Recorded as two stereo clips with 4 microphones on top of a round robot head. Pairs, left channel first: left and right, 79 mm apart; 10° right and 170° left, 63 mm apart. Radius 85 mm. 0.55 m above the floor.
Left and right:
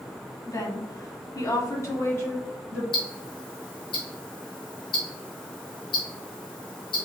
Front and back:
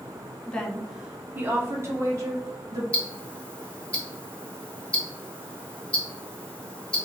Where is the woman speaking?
55° left, 1.0 m; by 2.8 s 150° left, 2 m.